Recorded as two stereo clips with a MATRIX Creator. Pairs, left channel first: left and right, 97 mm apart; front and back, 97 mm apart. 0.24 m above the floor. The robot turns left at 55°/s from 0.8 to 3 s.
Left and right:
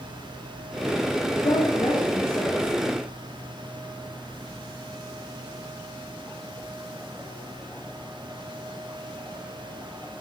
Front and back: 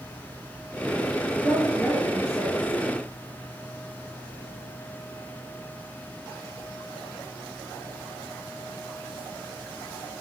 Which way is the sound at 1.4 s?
115° left.